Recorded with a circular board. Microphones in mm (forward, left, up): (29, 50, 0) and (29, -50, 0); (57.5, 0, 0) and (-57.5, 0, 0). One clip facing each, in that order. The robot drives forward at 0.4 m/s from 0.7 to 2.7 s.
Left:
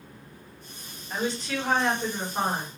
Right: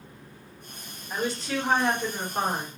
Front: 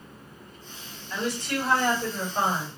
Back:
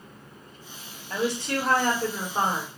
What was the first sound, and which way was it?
A woman speaking, 170° right.